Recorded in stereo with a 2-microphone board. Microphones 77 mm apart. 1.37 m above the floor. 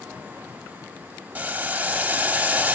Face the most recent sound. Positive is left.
turn(degrees=-20)  # may be behind; listen again after turning